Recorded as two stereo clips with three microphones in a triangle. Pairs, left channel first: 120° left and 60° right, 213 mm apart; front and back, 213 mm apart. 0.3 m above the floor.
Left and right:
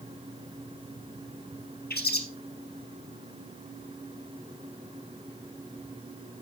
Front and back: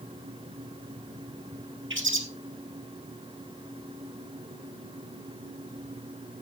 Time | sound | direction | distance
1.9 | a bird | 160° left | 1.7 m